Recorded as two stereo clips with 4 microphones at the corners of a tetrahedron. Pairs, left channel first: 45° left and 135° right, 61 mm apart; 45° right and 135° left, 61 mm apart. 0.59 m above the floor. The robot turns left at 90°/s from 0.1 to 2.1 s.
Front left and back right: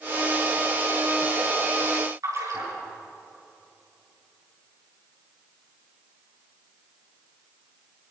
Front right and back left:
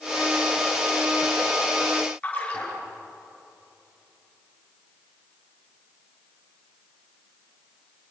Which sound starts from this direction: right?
A splash, at 2.2 s.